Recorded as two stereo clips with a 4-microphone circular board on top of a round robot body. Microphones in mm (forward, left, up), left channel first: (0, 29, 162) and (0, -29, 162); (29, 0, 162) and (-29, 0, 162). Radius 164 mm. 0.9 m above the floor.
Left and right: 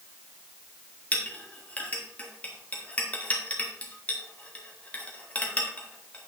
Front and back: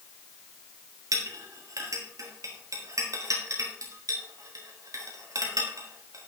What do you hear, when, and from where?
1.1 s a clink: 155° left, 1.7 m